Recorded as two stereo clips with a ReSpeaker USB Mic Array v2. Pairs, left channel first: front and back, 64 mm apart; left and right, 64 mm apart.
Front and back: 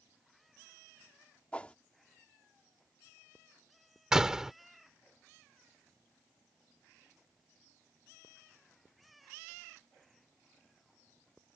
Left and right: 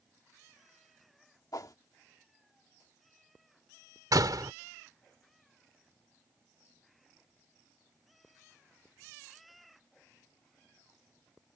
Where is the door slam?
100° right.